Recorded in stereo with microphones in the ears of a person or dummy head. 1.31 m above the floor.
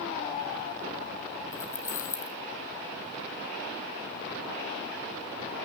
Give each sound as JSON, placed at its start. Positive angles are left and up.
{"t": 1.5, "sound": "keys jangling", "side_deg": 15, "distance_m": 2.0}